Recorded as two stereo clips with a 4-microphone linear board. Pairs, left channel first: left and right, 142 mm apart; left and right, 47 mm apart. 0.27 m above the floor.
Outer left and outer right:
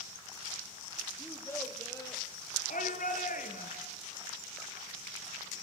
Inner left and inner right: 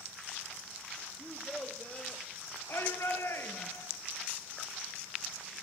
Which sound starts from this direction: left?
A shout, at 2.7 s.